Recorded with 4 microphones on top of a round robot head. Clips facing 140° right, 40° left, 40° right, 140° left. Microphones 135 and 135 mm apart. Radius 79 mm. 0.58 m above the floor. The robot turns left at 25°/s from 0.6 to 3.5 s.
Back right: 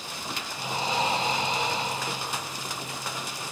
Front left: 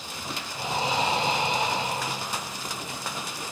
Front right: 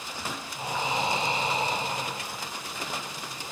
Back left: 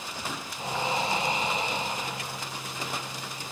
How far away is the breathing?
About 0.5 m.